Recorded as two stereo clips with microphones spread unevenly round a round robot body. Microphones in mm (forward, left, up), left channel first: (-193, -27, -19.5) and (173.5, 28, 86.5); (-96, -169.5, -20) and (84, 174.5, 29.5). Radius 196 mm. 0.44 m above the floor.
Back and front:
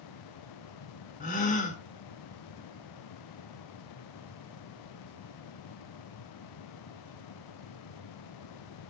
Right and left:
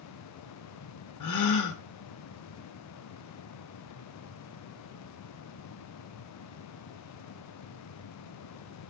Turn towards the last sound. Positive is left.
turn(degrees=-120)